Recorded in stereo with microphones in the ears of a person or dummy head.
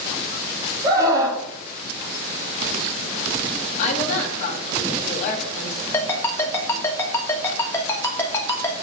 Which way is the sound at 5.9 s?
15° left (ahead or behind).